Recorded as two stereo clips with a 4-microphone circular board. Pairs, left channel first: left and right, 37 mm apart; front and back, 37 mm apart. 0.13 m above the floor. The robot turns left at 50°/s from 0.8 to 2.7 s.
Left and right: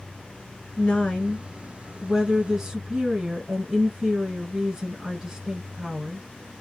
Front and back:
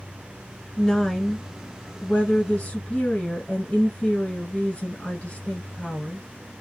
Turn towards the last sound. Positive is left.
turn(degrees=-20)